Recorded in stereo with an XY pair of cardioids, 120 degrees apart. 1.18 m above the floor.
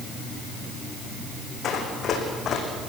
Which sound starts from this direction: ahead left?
Running footsteps, at 1.6 s.